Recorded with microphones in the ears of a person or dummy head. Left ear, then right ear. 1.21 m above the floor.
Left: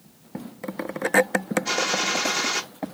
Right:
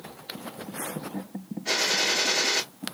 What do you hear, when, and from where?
1.6 s a gunshot: 35° left (ahead or behind), 1.8 m